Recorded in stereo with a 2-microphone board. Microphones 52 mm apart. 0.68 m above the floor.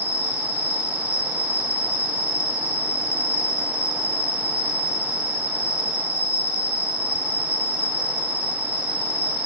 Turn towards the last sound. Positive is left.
turn(degrees=-40)  # may be behind; listen again after turning